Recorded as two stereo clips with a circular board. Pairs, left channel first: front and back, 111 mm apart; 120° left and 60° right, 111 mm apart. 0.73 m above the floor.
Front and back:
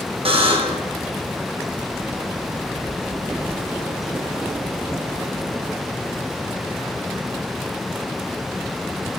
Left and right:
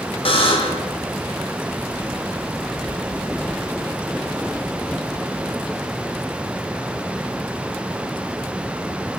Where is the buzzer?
150° left, 0.6 m.